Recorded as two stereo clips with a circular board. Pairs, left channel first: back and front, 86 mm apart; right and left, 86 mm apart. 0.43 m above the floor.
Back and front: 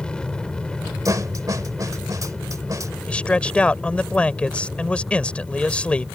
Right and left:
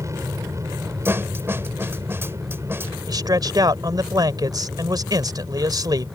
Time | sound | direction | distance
0.0 | an aircraft | 110° left | ?
1.1 | a snare drum | 35° left | ?
3.1 | a man speaking | 110° left | ?